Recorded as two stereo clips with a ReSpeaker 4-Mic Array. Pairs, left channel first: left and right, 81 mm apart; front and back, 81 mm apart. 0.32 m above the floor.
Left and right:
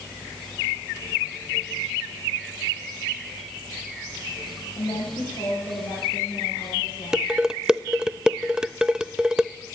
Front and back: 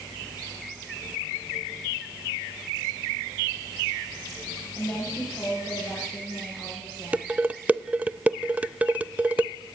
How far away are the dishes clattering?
About 0.6 m.